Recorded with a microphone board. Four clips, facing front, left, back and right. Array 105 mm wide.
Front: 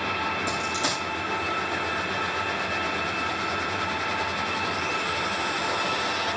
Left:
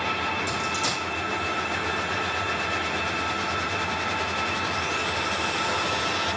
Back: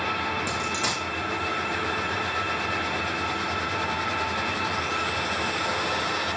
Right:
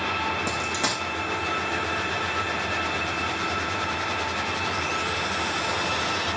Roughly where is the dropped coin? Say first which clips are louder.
Even, front 1 dB; right.